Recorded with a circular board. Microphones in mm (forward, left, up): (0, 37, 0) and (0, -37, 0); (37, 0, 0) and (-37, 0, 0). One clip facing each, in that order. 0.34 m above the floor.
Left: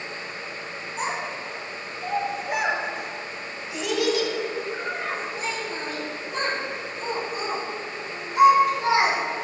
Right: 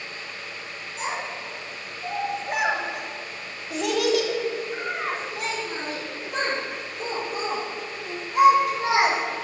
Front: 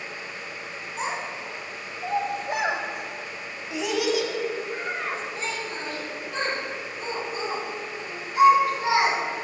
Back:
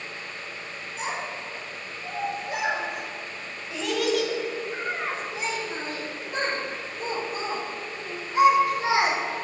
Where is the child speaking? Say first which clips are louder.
Left 1 dB, front 1 dB; 40° left, 1.8 m; by 9.2 s 115° right, 5 m.